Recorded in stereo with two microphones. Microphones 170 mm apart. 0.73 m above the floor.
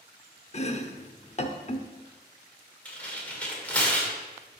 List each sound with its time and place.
0.5 s chopping: 40° left (ahead or behind), 0.6 m
2.9 s tearing paper: 10° left (ahead or behind), 1.8 m